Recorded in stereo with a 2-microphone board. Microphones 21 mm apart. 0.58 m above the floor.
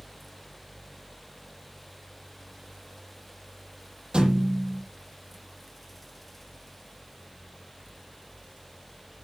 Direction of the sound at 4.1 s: 60° right (ahead or behind).